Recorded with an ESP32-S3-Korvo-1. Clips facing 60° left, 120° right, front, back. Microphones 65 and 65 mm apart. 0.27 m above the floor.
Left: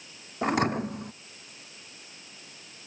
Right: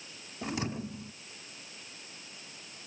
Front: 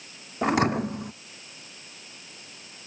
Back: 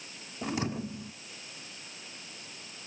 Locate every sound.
0.4 s a thud: 30° left